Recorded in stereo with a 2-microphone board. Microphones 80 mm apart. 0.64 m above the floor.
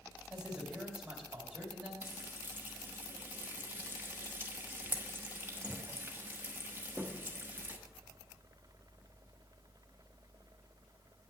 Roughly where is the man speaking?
Centre.